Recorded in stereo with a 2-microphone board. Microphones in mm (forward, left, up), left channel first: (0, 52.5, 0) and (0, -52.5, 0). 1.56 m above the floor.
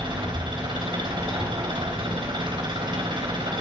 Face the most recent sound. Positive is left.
turn(degrees=-55)  # may be behind; listen again after turning